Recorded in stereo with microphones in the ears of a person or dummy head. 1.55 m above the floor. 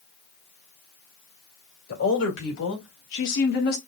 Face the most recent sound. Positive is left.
turn(degrees=55)  # may be behind; listen again after turning